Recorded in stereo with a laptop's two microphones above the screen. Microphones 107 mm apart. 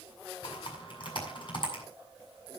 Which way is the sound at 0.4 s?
50° left (ahead or behind).